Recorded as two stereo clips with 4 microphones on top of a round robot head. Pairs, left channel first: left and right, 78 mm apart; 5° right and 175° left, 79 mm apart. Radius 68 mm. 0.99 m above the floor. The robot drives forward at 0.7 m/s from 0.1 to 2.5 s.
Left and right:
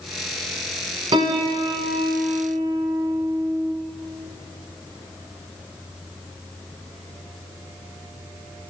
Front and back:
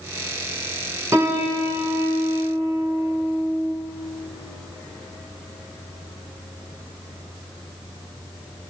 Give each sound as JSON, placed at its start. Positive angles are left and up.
{"t": 1.1, "sound": "a piano", "azimuth_deg": -115, "distance_m": 2.0}